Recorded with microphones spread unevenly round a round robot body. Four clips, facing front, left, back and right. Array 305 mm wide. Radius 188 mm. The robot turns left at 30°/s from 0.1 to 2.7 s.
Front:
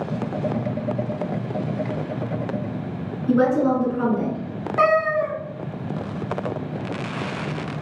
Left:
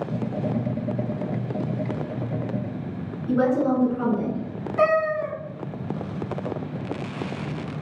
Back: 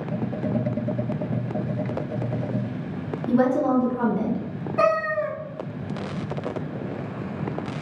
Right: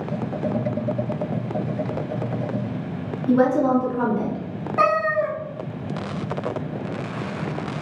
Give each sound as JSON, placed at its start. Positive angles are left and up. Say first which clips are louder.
{"t": 3.3, "sound": "a woman speaking", "louder": "right 3 dB, front 2 dB", "azimuth_deg": -110, "distance_m": 1.0}
{"t": 4.8, "sound": "a cat meowing", "louder": "right 1 dB, front 3 dB", "azimuth_deg": -50, "distance_m": 1.3}